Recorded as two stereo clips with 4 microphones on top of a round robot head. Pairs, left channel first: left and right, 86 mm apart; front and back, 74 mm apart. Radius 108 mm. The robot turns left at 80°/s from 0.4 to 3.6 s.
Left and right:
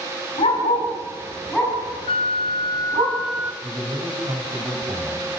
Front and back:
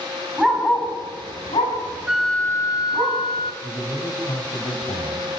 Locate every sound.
0.4 s a dog barking: 100° left, 5.5 m; by 3.1 s 115° right, 5.5 m
2.1 s a flute: 95° left, 0.5 m; by 3.5 s 20° right, 0.5 m
3.6 s a man speaking: 40° right, 5 m